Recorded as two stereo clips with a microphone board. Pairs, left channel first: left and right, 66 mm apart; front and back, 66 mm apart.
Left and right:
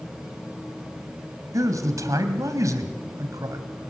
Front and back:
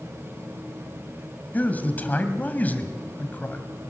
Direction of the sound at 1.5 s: 65° right.